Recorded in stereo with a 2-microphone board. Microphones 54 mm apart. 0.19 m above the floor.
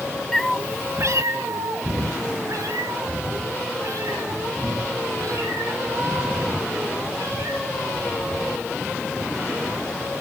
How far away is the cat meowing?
About 0.6 m.